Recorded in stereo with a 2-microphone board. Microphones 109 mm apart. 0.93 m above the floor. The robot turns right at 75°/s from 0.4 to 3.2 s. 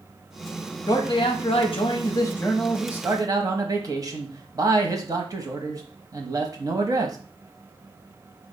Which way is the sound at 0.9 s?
45° left.